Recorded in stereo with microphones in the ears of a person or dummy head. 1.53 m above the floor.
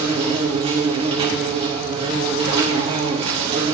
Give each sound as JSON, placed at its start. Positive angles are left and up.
{"t": 0.0, "sound": "an insect", "side_deg": -30, "distance_m": 0.7}